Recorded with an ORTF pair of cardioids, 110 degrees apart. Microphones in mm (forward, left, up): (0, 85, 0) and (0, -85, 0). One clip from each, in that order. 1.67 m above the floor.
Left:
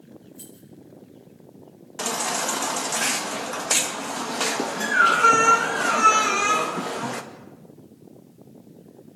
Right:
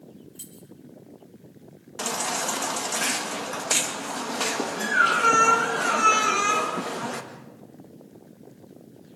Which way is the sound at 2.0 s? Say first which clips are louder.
Left 2 dB; 10° left.